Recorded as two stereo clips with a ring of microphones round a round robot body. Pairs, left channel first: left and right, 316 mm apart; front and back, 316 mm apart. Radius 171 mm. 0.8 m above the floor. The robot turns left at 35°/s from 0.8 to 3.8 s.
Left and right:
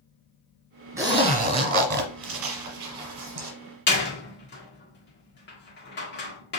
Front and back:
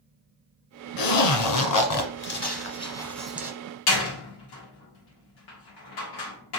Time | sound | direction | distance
1.0 | a zipper | 10° right | 1.4 m
3.9 | a door slam | 30° left | 1.5 m